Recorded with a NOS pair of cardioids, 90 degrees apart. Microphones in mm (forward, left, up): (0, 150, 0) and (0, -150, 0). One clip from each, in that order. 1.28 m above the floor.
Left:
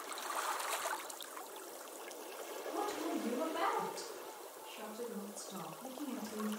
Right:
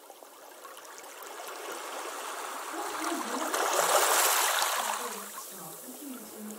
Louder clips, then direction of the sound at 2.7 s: Right 4 dB; straight ahead.